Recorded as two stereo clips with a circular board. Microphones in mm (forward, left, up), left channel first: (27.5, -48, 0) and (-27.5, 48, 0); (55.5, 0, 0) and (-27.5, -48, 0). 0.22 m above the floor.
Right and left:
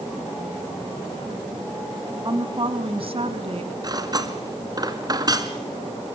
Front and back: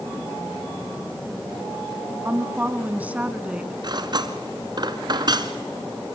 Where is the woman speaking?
155° left, 1.3 m; by 3.7 s 130° left, 1.9 m.